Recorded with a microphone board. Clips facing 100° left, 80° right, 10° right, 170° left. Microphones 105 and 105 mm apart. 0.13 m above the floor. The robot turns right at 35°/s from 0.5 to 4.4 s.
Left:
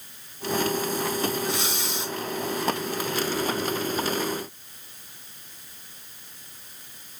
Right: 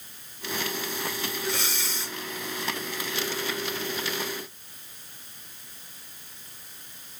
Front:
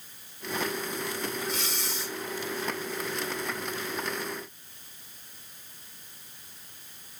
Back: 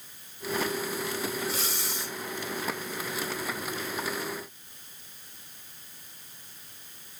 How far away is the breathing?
About 1.0 m.